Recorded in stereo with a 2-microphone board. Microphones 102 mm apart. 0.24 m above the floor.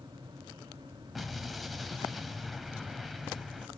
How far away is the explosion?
About 1.2 m.